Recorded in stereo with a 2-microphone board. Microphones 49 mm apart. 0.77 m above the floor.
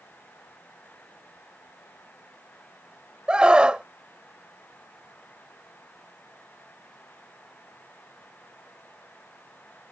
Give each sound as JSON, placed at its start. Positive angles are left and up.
{"t": 3.3, "sound": "a scream", "side_deg": -20}